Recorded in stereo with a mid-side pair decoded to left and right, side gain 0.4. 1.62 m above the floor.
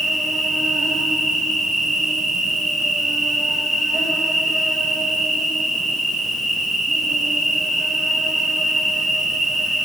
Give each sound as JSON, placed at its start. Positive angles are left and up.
{"t": 0.0, "sound": "an insect", "azimuth_deg": -5, "distance_m": 2.5}